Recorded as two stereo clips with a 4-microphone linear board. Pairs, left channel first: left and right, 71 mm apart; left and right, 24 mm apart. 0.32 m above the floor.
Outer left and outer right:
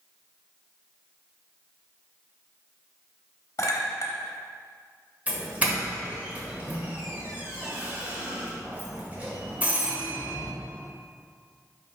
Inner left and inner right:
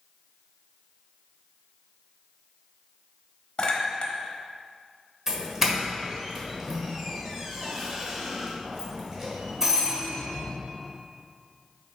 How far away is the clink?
About 1.0 m.